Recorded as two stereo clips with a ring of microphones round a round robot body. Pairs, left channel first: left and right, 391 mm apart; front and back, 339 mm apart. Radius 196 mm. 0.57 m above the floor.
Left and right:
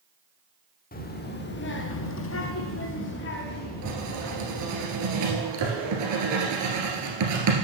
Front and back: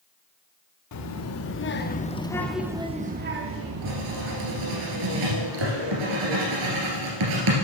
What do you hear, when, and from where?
0.9 s a child speaking: 25° left, 1.1 m; by 4.8 s 165° left, 1.4 m
3.8 s writing: 140° right, 2 m